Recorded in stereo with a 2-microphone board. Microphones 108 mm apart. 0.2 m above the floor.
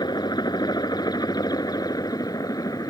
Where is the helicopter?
40° left (ahead or behind); by 2.9 s 35° left (ahead or behind).